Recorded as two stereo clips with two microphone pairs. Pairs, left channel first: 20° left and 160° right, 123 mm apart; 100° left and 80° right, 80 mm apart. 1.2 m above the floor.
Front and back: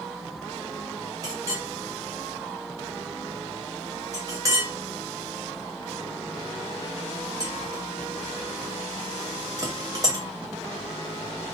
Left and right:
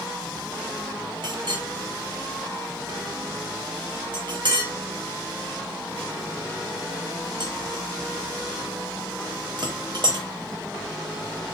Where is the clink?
100° right, 1.0 m.